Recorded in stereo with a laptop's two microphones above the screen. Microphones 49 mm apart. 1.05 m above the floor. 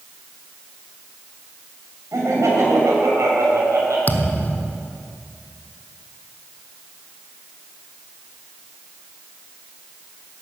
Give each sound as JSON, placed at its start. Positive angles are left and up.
{"t": 2.1, "sound": "laughter", "side_deg": -85, "distance_m": 5.5}
{"t": 4.1, "sound": "a thud", "side_deg": 35, "distance_m": 1.4}